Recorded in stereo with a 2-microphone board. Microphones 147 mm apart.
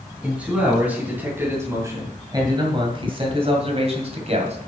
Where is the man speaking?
5° right (ahead or behind), 3.5 m; by 4.6 s 50° right (ahead or behind), 2.5 m.